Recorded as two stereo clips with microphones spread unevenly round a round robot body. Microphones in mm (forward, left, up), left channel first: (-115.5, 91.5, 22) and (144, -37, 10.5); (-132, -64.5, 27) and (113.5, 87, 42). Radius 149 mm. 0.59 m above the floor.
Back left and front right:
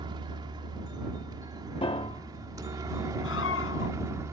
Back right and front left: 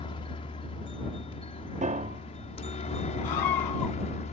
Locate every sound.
0.0 s a helicopter: 90° right; by 4.3 s 100° right
1.8 s a piano: 90° left
3.2 s a scream: 155° right